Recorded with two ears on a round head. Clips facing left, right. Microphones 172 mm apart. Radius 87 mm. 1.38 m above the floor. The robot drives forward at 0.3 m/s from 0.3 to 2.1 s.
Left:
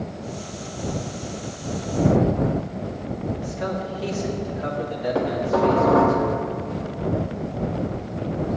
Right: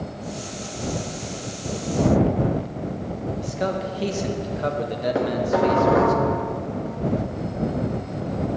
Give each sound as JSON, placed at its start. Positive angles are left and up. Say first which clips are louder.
{"t": 3.4, "sound": "a man speaking", "louder": "right 2 dB", "side_deg": -45, "distance_m": 1.2}
{"t": 5.2, "sound": "dishes clattering", "louder": "even", "side_deg": -20, "distance_m": 1.1}